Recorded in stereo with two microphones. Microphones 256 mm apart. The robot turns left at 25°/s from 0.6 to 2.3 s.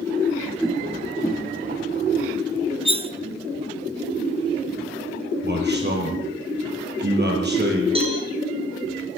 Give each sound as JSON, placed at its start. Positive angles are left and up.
{"t": 0.6, "sound": "a whoosh", "side_deg": -5, "distance_m": 5.0}
{"t": 2.9, "sound": "cutlery clinking", "side_deg": -20, "distance_m": 0.9}
{"t": 5.4, "sound": "a man speaking", "side_deg": -40, "distance_m": 8.0}
{"t": 8.0, "sound": "a cowbell", "side_deg": -20, "distance_m": 7.0}